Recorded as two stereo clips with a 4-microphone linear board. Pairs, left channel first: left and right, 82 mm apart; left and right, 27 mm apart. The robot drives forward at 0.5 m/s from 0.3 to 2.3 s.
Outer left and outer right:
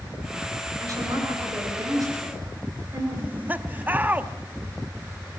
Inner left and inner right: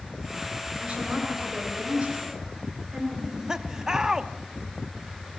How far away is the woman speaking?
About 9.5 m.